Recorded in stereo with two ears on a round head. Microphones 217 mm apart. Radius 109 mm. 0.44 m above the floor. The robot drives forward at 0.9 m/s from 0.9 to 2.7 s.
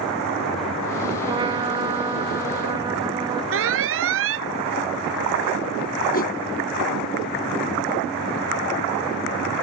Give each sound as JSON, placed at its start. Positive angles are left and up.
{"t": 1.3, "sound": "a trumpet", "side_deg": -20}
{"t": 3.5, "sound": "an alarm", "side_deg": -60}
{"t": 6.1, "sound": "a whoosh", "side_deg": 40}